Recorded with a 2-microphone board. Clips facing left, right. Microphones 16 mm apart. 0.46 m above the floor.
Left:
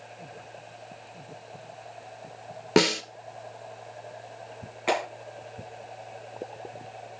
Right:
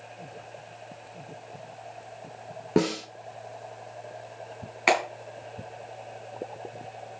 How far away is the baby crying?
I don't hear a baby crying.